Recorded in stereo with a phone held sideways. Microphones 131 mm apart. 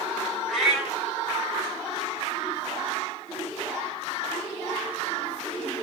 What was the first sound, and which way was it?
A cat meowing, centre (ahead or behind).